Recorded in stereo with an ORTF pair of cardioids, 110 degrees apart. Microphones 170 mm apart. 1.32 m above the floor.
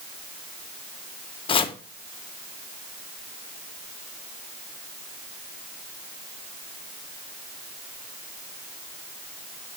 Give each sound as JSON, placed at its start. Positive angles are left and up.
{"t": 1.5, "sound": "chopping", "azimuth_deg": 30, "distance_m": 0.8}